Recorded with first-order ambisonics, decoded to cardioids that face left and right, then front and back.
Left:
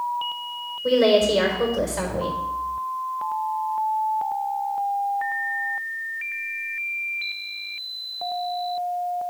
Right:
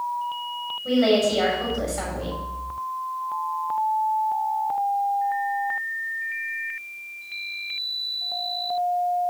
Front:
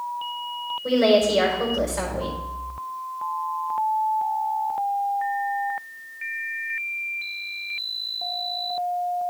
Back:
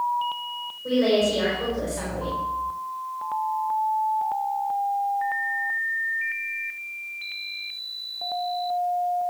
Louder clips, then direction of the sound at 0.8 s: Left 3 dB, front 3 dB; 70° left.